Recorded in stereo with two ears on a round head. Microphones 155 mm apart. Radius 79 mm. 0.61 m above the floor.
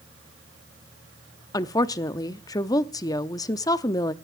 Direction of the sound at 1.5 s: 20° left (ahead or behind).